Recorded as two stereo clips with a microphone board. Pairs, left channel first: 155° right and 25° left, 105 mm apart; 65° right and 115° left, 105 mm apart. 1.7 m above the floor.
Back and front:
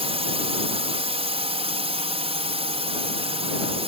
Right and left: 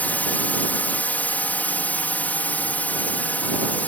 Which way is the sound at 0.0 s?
5° left.